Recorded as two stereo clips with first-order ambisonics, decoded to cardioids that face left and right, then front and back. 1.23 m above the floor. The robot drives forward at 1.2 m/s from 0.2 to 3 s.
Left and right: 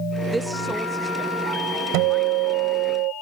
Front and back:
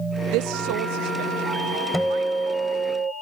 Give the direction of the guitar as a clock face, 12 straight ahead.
3 o'clock.